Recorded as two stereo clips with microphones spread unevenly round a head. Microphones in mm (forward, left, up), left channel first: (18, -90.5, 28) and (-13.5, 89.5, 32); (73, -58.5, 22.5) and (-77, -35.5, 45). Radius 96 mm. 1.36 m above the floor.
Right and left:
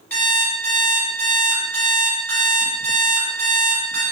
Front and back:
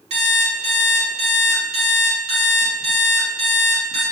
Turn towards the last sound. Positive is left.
turn(degrees=-160)